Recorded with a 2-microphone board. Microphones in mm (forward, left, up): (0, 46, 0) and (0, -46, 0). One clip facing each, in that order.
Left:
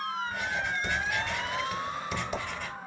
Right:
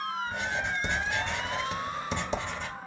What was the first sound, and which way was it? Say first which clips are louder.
Writing: even; 25° right (ahead or behind).